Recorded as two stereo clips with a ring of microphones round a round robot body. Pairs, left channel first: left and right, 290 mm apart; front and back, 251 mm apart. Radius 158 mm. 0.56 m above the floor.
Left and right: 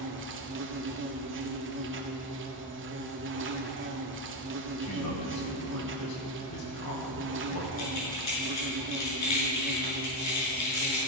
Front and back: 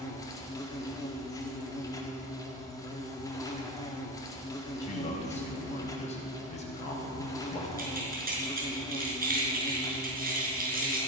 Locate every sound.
0.0 s an insect: 70° right, 1.6 m
4.8 s a man speaking: 65° left, 4 m
7.8 s keys jangling: 125° left, 6 m